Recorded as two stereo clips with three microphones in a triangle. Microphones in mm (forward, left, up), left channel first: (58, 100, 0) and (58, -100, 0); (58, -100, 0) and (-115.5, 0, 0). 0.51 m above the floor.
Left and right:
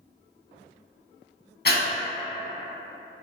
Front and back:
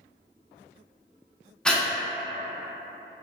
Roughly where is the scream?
I don't hear a scream.